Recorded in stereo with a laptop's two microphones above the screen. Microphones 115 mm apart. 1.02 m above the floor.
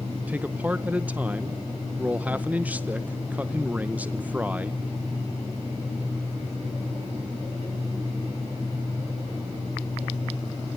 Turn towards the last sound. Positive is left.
turn(degrees=-15)  # may be behind; listen again after turning